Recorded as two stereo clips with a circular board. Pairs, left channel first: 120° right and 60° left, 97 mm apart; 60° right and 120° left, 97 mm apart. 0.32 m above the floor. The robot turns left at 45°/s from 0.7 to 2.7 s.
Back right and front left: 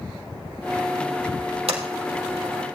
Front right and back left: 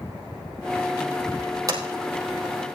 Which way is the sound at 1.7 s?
70° left.